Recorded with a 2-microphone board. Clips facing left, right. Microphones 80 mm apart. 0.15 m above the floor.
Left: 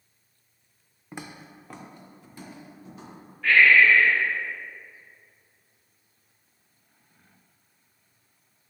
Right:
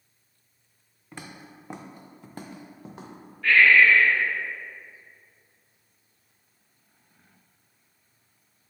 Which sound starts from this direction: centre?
Breathing, at 3.4 s.